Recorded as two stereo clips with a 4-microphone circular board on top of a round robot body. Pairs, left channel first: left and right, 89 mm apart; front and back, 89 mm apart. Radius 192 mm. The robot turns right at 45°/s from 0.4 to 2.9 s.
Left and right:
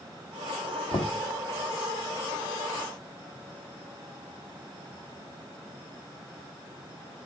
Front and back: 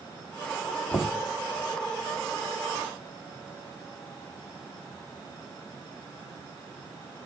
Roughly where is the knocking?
Ahead left.